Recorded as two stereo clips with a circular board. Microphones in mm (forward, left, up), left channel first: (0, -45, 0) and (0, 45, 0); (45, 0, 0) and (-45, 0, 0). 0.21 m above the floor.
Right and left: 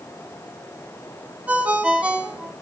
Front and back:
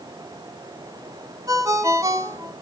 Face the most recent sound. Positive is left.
turn(degrees=155)